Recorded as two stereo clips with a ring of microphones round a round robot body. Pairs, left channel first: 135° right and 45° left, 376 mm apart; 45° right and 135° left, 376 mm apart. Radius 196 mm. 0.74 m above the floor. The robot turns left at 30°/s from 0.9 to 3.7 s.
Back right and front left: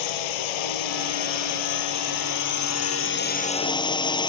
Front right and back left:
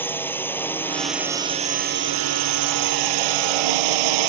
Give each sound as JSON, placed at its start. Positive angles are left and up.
{"t": 0.0, "sound": "a drone", "azimuth_deg": -130}